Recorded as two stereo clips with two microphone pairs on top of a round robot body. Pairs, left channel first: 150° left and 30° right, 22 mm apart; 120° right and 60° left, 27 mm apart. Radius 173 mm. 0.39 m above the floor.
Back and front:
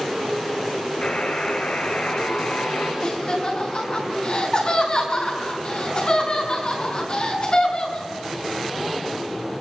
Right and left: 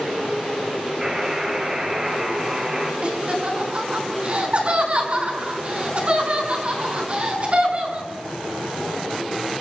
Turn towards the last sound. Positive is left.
turn(degrees=105)